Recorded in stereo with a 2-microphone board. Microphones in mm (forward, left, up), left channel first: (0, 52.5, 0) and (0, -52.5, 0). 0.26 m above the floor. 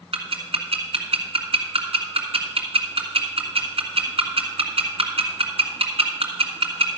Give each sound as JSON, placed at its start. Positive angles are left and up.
{"t": 0.1, "sound": "ticking", "side_deg": -65, "distance_m": 2.0}